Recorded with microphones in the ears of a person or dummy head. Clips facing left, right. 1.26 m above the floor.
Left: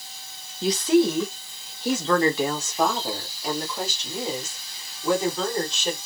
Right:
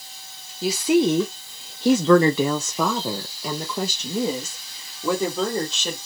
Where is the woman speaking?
Centre (ahead or behind), 0.8 m; by 6.0 s 65° right (ahead or behind), 2.5 m.